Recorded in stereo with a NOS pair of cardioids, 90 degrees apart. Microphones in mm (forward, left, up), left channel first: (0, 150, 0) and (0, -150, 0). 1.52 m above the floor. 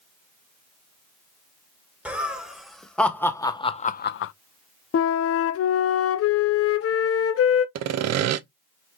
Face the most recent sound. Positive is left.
turn(degrees=-60)